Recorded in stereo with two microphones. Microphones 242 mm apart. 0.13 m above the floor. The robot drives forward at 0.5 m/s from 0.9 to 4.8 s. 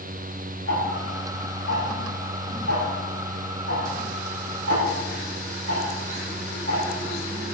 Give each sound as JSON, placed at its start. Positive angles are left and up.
{"t": 0.7, "sound": "ticking", "side_deg": -75, "distance_m": 4.0}